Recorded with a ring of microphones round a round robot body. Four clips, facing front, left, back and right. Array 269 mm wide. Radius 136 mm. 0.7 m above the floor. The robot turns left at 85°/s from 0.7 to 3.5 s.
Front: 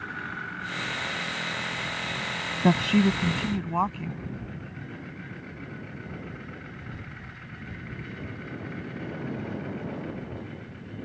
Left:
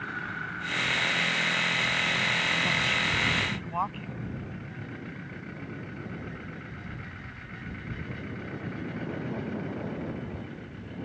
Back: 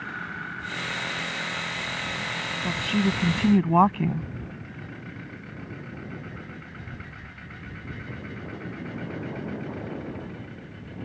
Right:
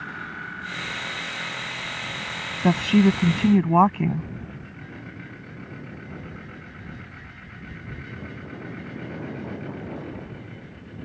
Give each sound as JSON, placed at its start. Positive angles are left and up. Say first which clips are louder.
{"t": 2.6, "sound": "a woman speaking", "louder": "right 12 dB, front 5 dB", "azimuth_deg": -45}